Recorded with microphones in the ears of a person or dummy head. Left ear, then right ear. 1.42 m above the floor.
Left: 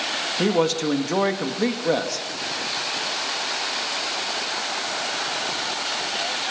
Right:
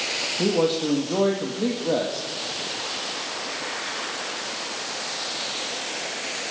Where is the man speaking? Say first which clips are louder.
Left 1 dB; 60° left (ahead or behind), 2.5 m.